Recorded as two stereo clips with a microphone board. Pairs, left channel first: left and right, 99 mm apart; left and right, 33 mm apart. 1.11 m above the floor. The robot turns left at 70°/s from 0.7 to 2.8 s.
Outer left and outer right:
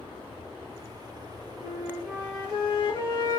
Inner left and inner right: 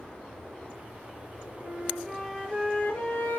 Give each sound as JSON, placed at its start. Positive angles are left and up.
{"t": 1.6, "sound": "a flute", "azimuth_deg": -155, "distance_m": 1.7}